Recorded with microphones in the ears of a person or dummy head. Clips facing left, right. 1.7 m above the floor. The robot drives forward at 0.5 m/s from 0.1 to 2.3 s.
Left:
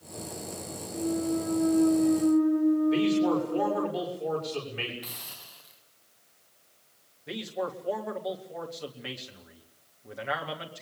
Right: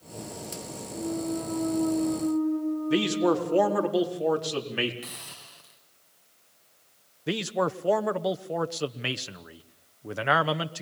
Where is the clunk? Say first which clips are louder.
Left 2 dB; 10° left (ahead or behind), 1.1 m; by 3.9 s 20° left (ahead or behind), 0.7 m.